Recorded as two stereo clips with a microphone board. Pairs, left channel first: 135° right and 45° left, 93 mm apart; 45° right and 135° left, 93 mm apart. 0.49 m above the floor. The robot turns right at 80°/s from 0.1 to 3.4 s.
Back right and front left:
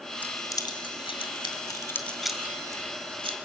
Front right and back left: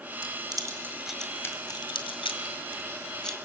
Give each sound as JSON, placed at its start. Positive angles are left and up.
{"t": 0.2, "sound": "keys jangling", "azimuth_deg": 150, "distance_m": 1.8}